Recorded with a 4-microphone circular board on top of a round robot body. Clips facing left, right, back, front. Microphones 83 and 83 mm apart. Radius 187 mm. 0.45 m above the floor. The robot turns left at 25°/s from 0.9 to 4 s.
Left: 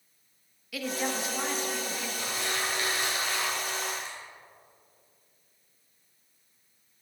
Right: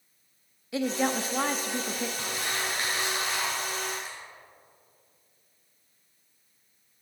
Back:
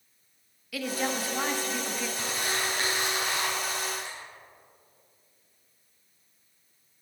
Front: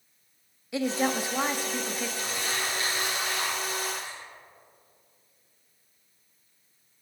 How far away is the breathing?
No breathing in this recording.